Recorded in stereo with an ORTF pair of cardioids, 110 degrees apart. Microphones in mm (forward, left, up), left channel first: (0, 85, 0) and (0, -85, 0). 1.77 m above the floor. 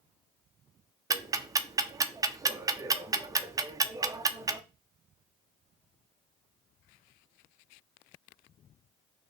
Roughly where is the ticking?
Ahead.